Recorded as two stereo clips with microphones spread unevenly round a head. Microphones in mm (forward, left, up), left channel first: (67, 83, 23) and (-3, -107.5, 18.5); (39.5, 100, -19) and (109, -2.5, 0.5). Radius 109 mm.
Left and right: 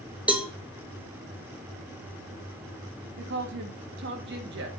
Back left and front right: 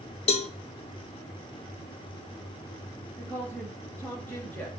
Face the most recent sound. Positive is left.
turn(degrees=-150)